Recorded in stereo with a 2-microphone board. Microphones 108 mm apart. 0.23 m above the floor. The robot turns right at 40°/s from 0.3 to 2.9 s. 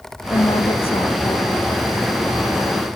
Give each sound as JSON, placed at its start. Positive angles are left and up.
{"t": 0.3, "sound": "a woman speaking", "azimuth_deg": 40}